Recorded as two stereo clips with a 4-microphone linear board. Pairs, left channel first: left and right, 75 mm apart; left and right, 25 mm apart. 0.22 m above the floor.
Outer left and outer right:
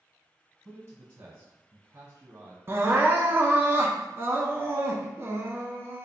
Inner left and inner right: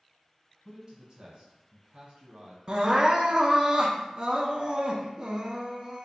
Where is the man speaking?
30° right (ahead or behind), 1.5 m.